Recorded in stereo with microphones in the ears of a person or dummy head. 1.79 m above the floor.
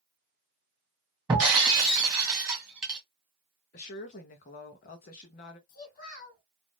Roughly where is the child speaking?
Left.